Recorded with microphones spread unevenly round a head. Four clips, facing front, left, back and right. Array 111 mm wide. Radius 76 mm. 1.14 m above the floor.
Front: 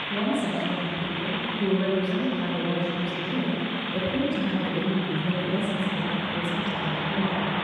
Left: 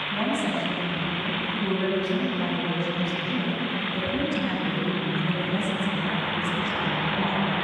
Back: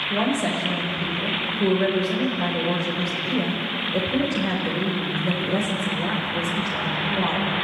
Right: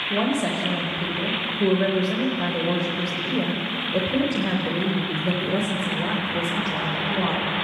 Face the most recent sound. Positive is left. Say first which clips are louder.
# right 3 dB, back 3 dB
turn(degrees=-120)